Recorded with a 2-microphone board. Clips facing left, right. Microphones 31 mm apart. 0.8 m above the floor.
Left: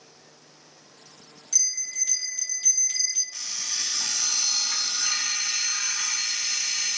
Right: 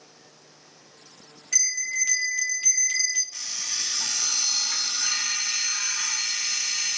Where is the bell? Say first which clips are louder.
Right 5 dB; 65° right (ahead or behind), 3 m.